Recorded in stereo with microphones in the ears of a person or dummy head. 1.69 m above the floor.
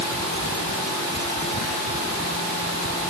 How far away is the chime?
I don't hear a chime.